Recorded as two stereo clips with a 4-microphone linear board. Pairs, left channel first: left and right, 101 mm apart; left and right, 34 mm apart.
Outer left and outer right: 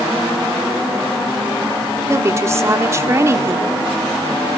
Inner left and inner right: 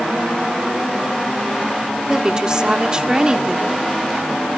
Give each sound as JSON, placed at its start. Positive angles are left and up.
{"t": 2.1, "sound": "a woman speaking", "side_deg": -30, "distance_m": 1.3}